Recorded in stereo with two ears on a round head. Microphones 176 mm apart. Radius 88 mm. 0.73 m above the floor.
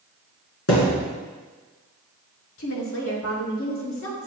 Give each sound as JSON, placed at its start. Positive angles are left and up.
{"t": 0.7, "sound": "a thud", "side_deg": 80, "distance_m": 2.5}
{"t": 2.6, "sound": "a woman speaking", "side_deg": 70, "distance_m": 2.5}